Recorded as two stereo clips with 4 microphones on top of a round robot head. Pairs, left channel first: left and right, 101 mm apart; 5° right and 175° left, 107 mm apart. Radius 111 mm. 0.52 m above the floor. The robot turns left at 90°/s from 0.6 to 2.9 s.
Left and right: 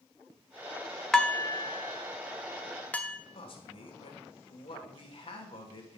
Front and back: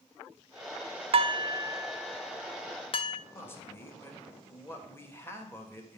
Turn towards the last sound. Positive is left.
turn(degrees=65)